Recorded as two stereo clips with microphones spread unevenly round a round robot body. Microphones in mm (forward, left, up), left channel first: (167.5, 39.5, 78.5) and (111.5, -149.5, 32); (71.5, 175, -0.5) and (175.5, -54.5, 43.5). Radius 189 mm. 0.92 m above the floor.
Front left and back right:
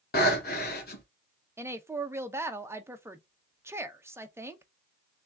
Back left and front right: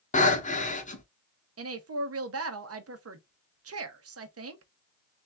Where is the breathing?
50° left, 1.7 m.